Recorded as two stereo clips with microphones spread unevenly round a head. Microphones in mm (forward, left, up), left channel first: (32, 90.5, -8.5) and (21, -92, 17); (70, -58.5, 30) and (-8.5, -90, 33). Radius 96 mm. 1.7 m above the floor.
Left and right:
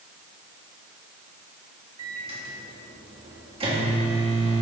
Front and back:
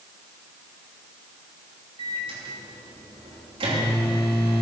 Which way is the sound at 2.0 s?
155° right.